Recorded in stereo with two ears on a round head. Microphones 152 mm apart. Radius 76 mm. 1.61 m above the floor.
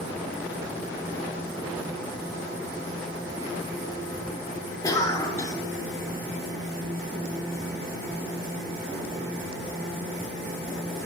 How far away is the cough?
About 0.6 m.